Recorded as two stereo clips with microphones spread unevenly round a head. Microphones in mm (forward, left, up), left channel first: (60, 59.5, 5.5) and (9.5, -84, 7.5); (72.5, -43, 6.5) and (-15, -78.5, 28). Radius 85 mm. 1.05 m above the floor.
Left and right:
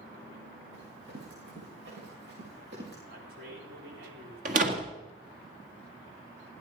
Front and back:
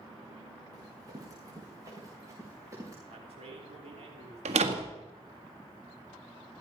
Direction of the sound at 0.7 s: 115° right.